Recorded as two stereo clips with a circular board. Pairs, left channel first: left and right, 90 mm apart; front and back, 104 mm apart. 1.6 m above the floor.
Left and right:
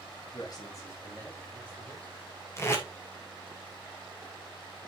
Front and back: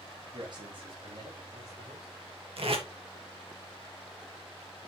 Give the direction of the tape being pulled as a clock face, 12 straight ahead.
7 o'clock.